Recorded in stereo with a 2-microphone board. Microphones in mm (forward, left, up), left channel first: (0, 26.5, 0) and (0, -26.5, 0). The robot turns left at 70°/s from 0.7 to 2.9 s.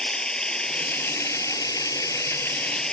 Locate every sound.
0.0 s running water: 165° left; by 3.0 s 10° left